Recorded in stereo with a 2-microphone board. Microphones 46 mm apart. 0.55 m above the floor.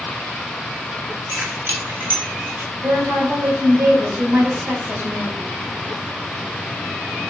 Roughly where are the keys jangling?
Right.